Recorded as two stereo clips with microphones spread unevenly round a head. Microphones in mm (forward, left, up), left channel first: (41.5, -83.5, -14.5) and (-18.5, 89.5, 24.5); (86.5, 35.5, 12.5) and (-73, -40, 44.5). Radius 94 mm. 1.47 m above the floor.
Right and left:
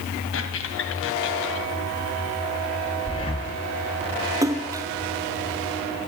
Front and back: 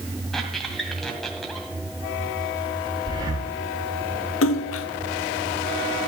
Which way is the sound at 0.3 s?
70° right.